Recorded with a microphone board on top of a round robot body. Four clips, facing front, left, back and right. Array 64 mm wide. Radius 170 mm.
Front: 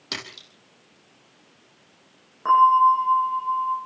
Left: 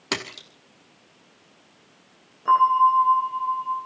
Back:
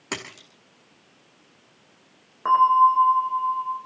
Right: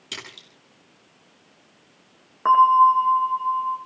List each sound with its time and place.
0.1 s a splash: 115° left, 2.5 m
2.5 s a bell: 110° right, 10 m